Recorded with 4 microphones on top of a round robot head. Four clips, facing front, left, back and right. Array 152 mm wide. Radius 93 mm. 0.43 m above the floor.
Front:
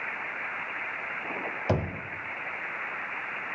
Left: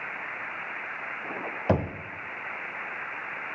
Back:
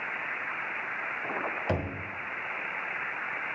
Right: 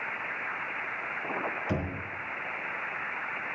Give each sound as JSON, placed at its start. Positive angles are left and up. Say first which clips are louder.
{"t": 1.7, "sound": "knocking", "louder": "left 10 dB, front 4 dB", "azimuth_deg": 75, "distance_m": 1.0}